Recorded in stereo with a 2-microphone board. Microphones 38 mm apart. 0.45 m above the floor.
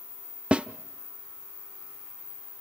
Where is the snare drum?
30° right (ahead or behind), 0.5 m.